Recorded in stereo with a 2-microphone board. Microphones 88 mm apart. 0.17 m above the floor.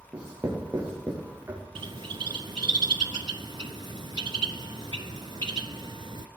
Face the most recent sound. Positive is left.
turn(degrees=-65)  # may be behind; listen again after turning